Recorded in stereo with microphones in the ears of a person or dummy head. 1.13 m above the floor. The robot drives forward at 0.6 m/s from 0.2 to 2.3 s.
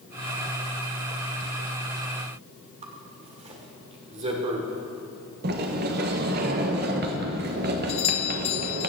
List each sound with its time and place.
2.8 s a zipper: 35° right (ahead or behind), 1.7 m
5.4 s a sliding door: 50° right (ahead or behind), 1.2 m
7.9 s a doorbell: 35° left (ahead or behind), 0.6 m